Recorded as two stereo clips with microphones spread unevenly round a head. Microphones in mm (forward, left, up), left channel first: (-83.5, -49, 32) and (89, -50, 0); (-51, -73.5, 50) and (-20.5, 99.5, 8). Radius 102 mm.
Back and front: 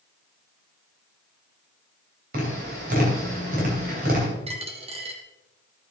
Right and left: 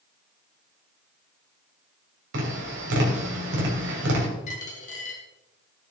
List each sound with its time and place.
2.3 s tapping: 50° left, 3 m
4.5 s a dropped coin: 60° right, 1.9 m